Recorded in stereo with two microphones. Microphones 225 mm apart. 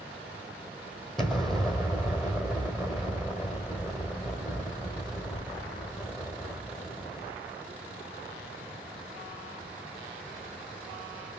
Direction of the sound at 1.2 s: Centre (ahead or behind).